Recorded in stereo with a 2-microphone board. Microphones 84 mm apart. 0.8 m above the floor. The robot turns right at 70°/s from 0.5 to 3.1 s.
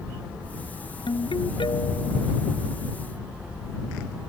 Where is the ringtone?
70° left; by 2.3 s 150° left.